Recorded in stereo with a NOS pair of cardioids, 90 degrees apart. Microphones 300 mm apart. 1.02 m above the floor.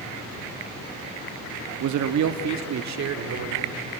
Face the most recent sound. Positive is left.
turn(degrees=-55)